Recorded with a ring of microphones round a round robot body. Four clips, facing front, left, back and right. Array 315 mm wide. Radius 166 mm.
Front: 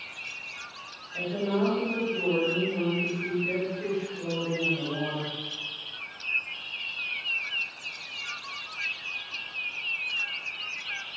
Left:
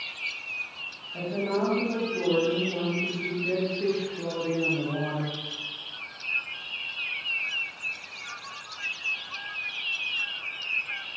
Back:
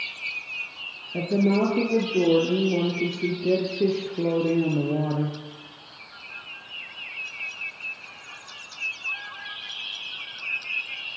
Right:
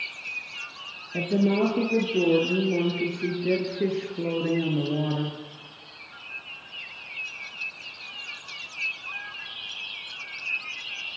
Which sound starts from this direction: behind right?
A woman speaking, at 1.1 s.